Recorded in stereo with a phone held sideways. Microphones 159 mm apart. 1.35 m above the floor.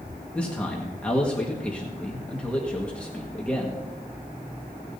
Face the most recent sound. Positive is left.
turn(degrees=5)  # may be behind; listen again after turning